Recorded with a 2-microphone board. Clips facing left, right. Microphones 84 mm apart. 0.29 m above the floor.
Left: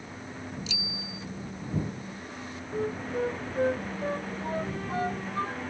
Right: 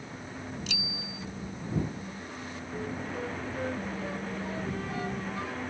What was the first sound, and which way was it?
A bicycle bell, 60° right (ahead or behind).